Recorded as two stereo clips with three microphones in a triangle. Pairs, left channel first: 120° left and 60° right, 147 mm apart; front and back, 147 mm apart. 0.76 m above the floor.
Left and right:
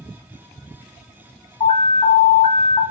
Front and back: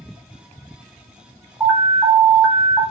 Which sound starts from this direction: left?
An alarm, at 1.6 s.